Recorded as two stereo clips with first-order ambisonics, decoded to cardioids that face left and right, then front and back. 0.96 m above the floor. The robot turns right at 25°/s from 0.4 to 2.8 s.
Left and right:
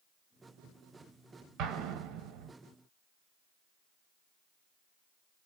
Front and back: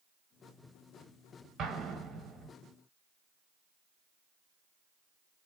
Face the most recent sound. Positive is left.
turn(degrees=-85)